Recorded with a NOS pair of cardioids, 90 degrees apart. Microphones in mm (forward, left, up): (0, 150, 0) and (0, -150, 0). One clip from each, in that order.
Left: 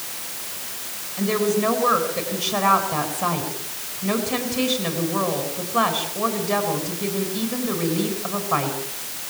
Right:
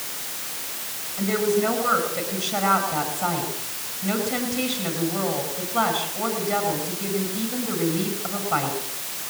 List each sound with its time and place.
1.2 s a woman speaking: 30° left, 9.5 m